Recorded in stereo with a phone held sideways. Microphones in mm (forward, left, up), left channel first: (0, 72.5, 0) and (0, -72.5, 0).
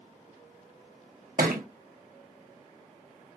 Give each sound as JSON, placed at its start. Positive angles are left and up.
{"t": 1.4, "sound": "a thud", "side_deg": -70, "distance_m": 0.6}